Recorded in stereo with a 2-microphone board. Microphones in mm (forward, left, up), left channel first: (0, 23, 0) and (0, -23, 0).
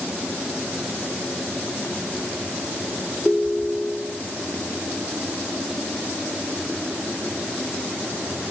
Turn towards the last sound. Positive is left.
turn(degrees=-10)  # may be behind; listen again after turning